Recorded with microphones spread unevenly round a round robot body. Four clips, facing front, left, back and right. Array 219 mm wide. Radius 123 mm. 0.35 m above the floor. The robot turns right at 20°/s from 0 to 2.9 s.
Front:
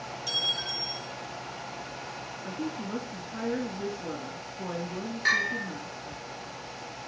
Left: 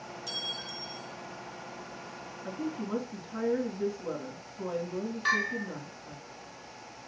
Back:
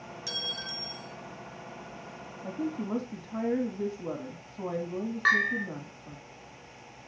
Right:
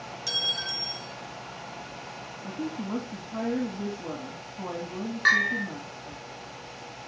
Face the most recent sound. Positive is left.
turn(degrees=-120)